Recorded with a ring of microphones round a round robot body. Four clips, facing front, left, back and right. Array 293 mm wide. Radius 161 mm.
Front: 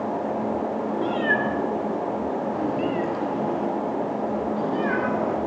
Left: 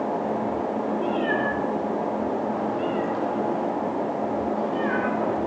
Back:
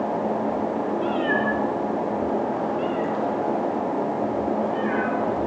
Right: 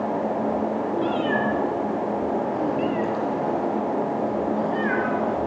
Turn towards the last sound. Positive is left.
turn(degrees=-15)